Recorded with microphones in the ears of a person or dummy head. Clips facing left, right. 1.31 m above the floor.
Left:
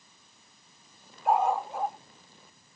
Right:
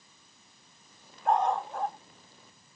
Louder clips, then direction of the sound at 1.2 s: Left 1 dB; 5° left (ahead or behind).